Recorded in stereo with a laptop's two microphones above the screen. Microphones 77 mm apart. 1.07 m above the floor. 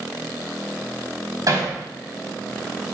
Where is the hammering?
50° right (ahead or behind), 3.5 m.